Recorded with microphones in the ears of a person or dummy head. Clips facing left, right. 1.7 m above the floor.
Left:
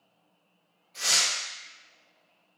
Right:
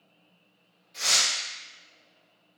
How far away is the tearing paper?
About 1.1 m.